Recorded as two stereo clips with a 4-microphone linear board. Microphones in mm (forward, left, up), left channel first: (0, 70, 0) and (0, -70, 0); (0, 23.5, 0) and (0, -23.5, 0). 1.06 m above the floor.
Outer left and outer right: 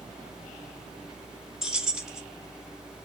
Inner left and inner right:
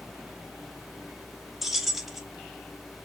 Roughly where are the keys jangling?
Centre.